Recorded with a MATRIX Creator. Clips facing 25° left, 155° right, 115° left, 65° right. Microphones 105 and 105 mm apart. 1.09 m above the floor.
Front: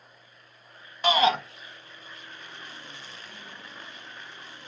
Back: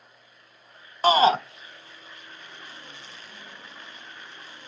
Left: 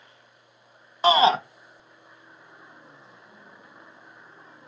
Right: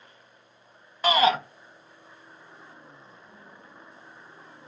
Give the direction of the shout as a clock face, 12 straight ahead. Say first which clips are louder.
Back 4 dB, left 3 dB; 7 o'clock.